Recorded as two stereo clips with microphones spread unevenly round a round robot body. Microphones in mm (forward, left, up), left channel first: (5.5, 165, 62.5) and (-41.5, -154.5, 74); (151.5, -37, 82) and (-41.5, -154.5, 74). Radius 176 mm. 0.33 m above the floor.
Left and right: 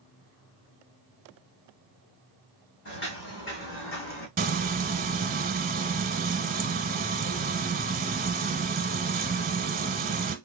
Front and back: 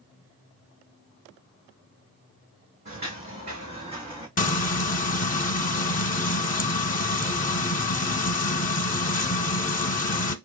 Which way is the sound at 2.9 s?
140° left.